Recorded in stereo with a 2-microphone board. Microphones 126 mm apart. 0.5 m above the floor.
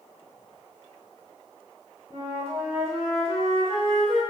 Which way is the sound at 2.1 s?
45° right (ahead or behind).